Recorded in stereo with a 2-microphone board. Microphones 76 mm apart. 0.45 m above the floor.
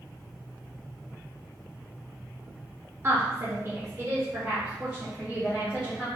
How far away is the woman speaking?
About 0.9 m.